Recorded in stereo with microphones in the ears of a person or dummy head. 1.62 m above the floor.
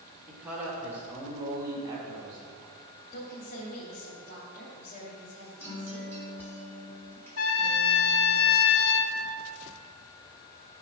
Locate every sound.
0.3 s a man speaking: 5° right (ahead or behind), 2 m; by 2.4 s 25° right (ahead or behind), 3 m
3.1 s a woman speaking: 50° left (ahead or behind), 3 m
5.6 s a guitar: 10° left (ahead or behind), 4 m
7.4 s a trumpet: 75° left (ahead or behind), 1.1 m